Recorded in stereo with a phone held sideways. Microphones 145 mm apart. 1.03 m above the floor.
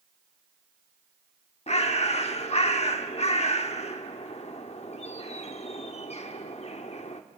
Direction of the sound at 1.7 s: 45° left (ahead or behind).